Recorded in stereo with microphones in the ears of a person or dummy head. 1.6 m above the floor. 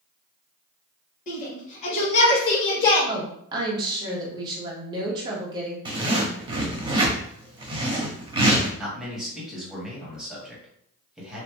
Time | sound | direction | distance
1.3 | a shout | 50° left (ahead or behind) | 1.9 m
3.1 | a woman speaking | 25° right (ahead or behind) | 1.1 m
5.8 | a zipper | 25° right (ahead or behind) | 0.8 m
8.8 | a man speaking | 5° right (ahead or behind) | 1.7 m